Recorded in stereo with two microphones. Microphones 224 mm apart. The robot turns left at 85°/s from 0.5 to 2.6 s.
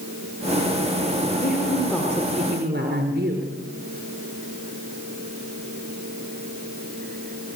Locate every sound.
1.4 s a woman speaking: 50° left, 5.5 m; by 3.5 s 50° right, 5.5 m